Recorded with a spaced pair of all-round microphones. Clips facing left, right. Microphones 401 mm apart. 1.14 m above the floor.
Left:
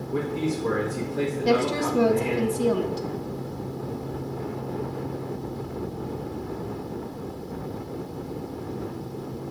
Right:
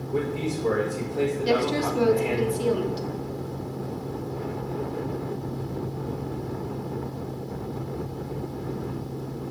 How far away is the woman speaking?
About 0.9 m.